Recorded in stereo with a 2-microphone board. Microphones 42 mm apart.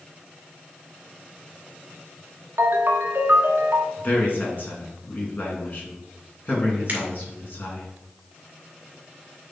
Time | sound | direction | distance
2.6 | a ringtone | 60° right (ahead or behind) | 0.9 m
4.0 | a man speaking | 45° left (ahead or behind) | 2.5 m
6.9 | a finger snap | 40° right (ahead or behind) | 2.5 m